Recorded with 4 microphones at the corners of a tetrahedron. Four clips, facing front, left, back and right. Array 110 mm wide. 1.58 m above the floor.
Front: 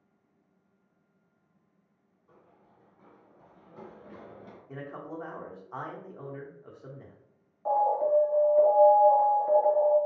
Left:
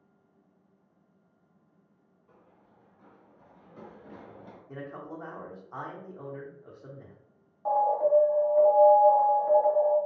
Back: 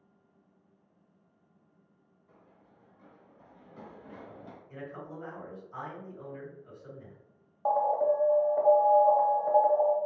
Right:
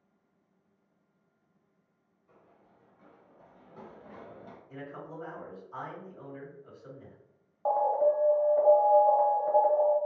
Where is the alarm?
150° right, 0.9 m.